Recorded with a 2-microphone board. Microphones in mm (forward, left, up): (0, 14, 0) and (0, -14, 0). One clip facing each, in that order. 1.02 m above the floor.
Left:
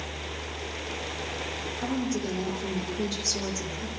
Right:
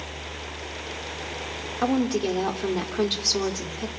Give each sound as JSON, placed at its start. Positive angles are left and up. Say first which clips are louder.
{"t": 1.8, "sound": "a woman speaking", "louder": "right 7 dB", "side_deg": -75, "distance_m": 2.5}